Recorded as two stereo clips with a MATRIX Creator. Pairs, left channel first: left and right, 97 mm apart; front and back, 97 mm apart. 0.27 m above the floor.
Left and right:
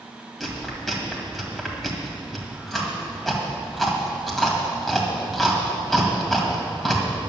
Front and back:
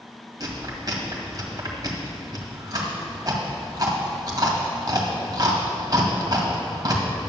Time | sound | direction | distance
0.4 | chewing | 175° left | 1.8 m